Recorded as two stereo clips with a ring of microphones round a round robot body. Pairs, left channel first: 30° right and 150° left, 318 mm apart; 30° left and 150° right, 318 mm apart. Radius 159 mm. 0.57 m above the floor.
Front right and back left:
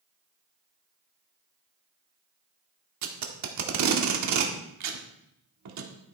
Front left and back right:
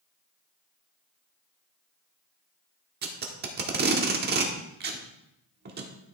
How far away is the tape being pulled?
About 1.3 m.